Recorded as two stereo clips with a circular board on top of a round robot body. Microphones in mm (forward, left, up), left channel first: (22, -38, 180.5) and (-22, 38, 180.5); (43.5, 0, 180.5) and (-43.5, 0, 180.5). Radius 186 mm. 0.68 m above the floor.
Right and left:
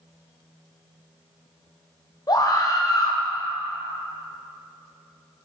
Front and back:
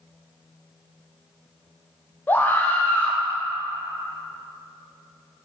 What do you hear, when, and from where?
2.3 s a scream: 60° right, 0.9 m